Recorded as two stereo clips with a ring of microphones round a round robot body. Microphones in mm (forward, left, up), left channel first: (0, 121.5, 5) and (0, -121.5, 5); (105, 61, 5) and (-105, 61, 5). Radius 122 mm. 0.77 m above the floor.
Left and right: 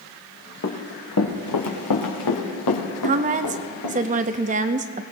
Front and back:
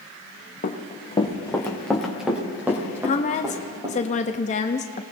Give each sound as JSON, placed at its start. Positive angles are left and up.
{"t": 0.6, "sound": "running footsteps", "azimuth_deg": 50, "distance_m": 2.5}
{"t": 3.0, "sound": "a woman speaking", "azimuth_deg": -45, "distance_m": 0.5}